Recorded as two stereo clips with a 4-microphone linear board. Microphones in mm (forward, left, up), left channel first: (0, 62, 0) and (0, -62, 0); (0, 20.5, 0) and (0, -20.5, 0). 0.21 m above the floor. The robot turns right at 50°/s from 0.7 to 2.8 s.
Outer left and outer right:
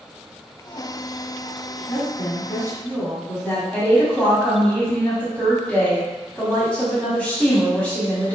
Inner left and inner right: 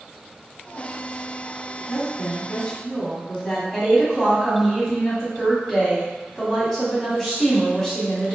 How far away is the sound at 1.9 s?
About 1.2 m.